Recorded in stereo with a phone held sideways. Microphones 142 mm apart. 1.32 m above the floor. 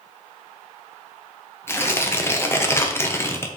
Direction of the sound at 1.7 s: 20° left (ahead or behind).